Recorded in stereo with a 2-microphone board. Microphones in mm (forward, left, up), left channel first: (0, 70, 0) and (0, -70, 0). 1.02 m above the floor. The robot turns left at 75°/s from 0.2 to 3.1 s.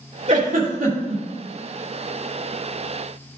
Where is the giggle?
45° right (ahead or behind), 2.5 m; by 1.2 s 65° right (ahead or behind), 2.5 m.